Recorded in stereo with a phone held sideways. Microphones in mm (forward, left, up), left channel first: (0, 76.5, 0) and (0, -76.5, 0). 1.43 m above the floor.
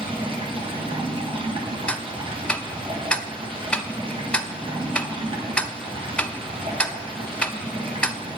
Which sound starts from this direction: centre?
Ticking, at 1.9 s.